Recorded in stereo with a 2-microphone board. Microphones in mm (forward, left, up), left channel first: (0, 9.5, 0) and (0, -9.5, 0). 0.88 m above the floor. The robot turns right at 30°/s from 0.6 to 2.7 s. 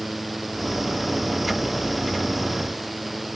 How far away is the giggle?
I don't hear a giggle.